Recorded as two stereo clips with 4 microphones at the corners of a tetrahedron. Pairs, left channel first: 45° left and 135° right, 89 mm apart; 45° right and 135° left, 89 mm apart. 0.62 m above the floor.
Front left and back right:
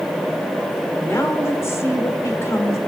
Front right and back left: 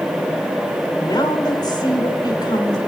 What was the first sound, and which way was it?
A woman speaking, 10° right.